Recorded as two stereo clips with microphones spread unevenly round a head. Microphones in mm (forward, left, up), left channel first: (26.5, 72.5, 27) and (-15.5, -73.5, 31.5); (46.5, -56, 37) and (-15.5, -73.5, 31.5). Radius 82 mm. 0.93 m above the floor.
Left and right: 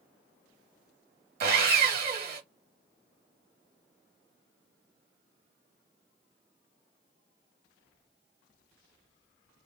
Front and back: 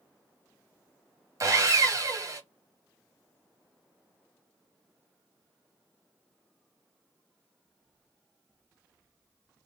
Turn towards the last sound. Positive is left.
turn(degrees=-130)